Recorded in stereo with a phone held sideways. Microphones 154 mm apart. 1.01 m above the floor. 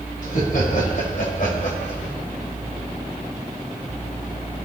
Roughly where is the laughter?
Left.